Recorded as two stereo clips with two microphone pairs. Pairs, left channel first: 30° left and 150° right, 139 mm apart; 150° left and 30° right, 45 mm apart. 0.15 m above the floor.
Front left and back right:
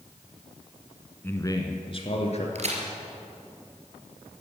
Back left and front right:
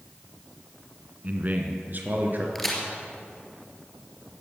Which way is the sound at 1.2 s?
35° right.